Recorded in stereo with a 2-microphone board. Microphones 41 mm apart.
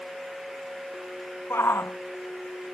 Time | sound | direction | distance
1.5 | a shout | 75° left (ahead or behind) | ?